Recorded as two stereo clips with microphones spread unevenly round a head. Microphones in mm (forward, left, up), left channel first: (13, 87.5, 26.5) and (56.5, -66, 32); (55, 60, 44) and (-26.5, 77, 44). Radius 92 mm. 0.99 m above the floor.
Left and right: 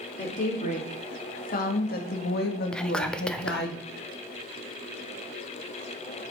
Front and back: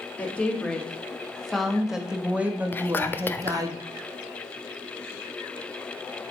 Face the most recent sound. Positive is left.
turn(degrees=30)